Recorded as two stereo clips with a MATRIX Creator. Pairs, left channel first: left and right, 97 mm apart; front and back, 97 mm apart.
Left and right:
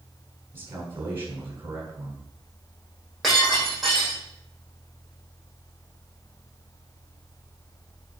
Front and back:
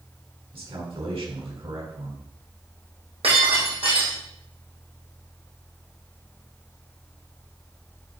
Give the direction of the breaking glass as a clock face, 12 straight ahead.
6 o'clock.